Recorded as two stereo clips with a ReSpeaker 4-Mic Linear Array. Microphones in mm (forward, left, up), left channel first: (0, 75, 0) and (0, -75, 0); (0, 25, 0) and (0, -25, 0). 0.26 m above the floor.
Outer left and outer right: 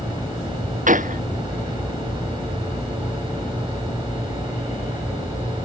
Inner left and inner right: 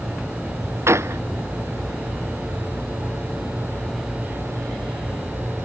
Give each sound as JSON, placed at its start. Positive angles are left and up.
{"t": 0.9, "sound": "a gunshot", "side_deg": -60}